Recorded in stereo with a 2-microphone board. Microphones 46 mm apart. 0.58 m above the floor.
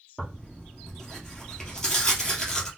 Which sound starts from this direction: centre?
Tearing paper, at 0.2 s.